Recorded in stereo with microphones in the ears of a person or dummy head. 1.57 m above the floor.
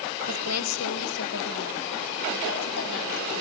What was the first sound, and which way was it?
A woman speaking, 85° left.